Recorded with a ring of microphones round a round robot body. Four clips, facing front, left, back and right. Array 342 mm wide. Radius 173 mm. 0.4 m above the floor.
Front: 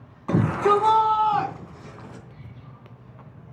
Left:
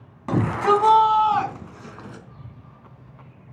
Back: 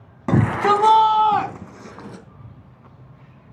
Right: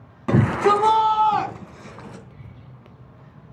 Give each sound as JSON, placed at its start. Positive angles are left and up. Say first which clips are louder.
{"t": 0.3, "sound": "a shout", "louder": "right 1 dB, back 2 dB", "azimuth_deg": -165, "distance_m": 2.5}